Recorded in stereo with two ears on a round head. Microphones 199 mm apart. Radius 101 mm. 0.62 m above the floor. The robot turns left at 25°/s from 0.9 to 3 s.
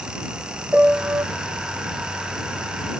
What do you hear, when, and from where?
0.7 s a piano: 5° right (ahead or behind); by 1.2 s 15° right (ahead or behind)